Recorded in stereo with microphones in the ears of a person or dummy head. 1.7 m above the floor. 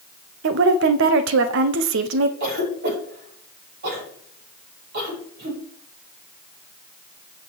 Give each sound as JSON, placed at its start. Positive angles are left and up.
{"t": 0.4, "sound": "a woman speaking", "side_deg": -65, "distance_m": 0.9}
{"t": 2.4, "sound": "a cough", "side_deg": -60, "distance_m": 5.5}